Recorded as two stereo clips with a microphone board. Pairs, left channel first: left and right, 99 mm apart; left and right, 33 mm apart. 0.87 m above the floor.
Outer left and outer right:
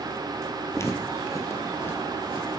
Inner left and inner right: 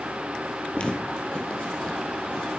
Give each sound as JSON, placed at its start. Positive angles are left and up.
{"t": 0.7, "sound": "footsteps", "side_deg": 30, "distance_m": 1.2}